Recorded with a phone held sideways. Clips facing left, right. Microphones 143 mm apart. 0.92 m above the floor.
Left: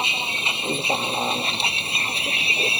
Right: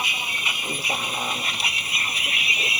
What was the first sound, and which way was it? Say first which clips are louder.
A vehicle: left 3 dB; 25° left (ahead or behind).